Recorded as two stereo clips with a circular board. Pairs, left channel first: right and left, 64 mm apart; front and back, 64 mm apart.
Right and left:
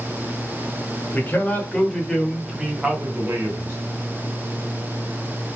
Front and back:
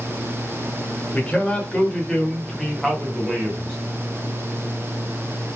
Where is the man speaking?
55° right, 1.2 m; by 3.8 s 105° left, 1.2 m.